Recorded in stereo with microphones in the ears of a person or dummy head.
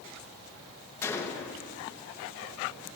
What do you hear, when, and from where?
1.0 s a gunshot: 15° left (ahead or behind), 1.0 m